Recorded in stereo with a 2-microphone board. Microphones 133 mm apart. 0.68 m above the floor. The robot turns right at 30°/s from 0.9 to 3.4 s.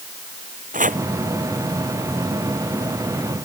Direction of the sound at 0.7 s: 90° right.